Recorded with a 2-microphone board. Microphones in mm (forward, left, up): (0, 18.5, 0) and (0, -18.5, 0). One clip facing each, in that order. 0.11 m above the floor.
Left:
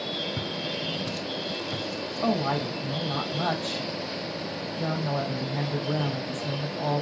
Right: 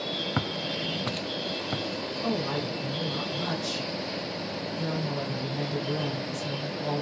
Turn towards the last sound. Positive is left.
turn(degrees=45)  # may be behind; listen again after turning